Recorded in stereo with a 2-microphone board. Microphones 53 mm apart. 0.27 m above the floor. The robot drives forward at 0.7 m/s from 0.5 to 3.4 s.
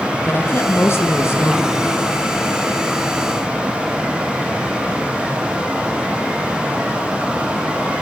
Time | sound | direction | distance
0.2 | a woman speaking | 50° left (ahead or behind) | 3.5 m